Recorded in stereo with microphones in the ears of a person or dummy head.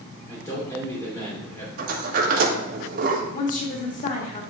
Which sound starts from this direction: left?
A woman speaking, at 3.3 s.